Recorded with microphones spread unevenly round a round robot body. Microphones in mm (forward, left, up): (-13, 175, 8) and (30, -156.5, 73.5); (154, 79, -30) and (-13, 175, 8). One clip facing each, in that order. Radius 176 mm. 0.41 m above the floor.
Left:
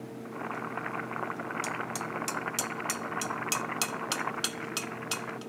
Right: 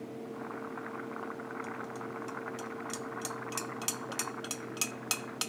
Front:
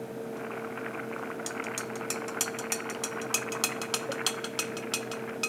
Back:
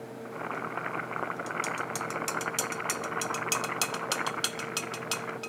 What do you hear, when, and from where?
0.2 s boiling: 125° left